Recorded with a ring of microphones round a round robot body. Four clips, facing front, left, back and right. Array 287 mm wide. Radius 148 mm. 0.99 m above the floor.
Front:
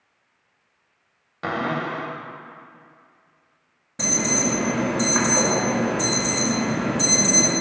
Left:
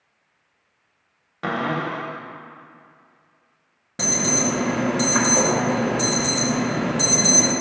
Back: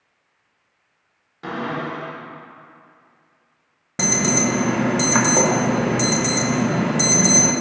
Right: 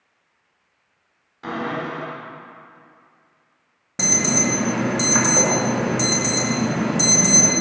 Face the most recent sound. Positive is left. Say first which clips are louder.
# right 1 dB, back 4 dB
turn(degrees=-170)